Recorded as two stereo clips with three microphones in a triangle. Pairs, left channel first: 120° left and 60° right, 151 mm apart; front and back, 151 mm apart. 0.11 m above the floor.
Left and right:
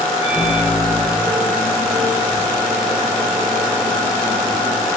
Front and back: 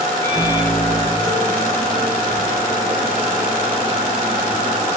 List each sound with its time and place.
0.2 s a microwave: 75° left, 7.5 m